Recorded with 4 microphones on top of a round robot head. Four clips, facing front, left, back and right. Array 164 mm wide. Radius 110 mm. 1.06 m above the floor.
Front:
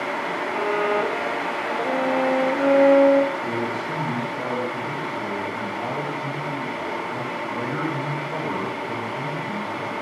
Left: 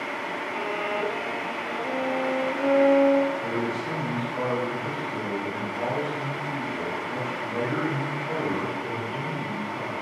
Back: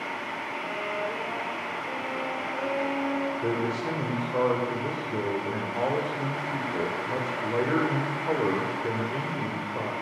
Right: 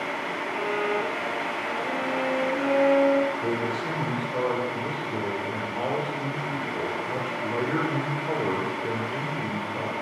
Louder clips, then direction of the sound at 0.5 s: Right 3 dB, front 12 dB; 10° left.